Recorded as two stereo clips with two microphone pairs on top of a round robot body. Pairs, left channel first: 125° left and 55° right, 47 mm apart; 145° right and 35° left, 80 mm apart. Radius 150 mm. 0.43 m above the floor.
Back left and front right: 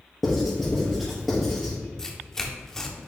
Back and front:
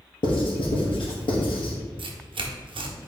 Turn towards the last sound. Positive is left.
turn(degrees=40)